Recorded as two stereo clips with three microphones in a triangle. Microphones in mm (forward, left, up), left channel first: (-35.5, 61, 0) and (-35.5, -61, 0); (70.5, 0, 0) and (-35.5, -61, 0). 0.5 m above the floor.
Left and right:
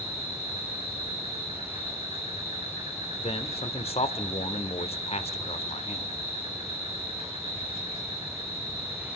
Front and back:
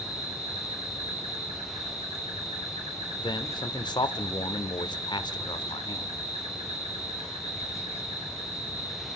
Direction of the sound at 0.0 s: 120° right.